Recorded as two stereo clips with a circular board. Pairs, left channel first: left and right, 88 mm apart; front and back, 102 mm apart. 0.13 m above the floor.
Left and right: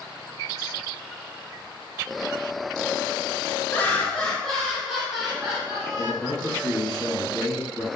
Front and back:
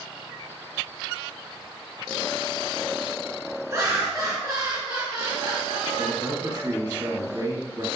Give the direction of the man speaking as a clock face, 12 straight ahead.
6 o'clock.